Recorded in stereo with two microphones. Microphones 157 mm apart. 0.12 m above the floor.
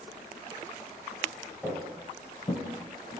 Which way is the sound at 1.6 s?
Centre (ahead or behind).